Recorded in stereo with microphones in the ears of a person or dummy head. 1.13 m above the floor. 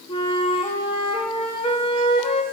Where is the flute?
30° left (ahead or behind), 0.6 m.